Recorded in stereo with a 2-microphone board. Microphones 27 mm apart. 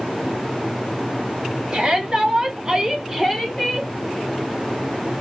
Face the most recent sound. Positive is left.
turn(degrees=0)  # may be behind; listen again after turning